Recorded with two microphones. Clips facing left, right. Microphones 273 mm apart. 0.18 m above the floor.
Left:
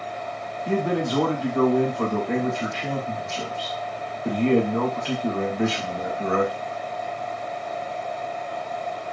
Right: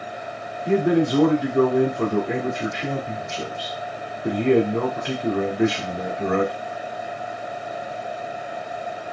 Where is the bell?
I don't hear a bell.